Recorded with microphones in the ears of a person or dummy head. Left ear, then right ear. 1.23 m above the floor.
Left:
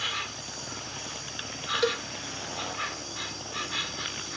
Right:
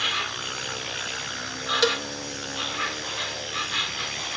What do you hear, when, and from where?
0.0 s an insect: 25° right (ahead or behind)
1.8 s a cowbell: 30° right (ahead or behind)